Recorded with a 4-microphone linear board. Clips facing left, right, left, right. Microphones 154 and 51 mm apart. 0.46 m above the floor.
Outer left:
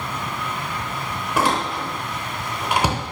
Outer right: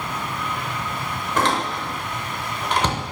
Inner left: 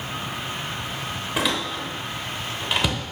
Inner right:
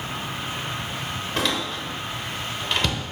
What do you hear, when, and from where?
1.4 s a door slam: 10° left (ahead or behind), 1.0 m